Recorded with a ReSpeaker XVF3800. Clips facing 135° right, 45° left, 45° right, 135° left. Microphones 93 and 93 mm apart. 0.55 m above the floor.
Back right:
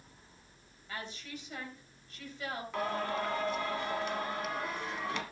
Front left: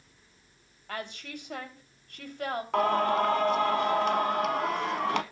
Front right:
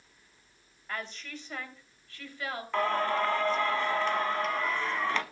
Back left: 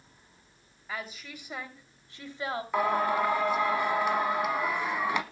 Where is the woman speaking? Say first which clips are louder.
Front left 5 dB, even; 50° left, 2.5 m; by 2.6 s 70° left, 2.5 m.